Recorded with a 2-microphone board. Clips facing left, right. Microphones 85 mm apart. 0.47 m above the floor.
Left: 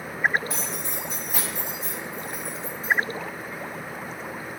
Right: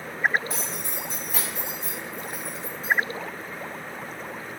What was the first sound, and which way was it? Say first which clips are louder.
Keys jangling: left 1 dB; centre (ahead or behind).